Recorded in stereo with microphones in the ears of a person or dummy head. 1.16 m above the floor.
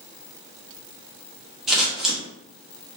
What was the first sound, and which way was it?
Scissors, 5° right (ahead or behind).